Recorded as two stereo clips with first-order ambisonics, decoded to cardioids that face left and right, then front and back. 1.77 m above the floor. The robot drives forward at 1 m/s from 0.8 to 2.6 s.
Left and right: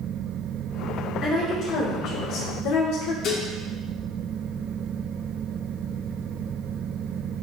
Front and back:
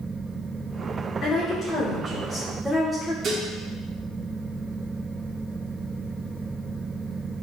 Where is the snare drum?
I don't hear a snare drum.